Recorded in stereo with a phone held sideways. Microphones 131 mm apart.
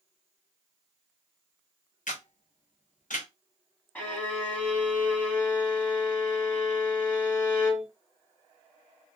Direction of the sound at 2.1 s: 75° left (ahead or behind).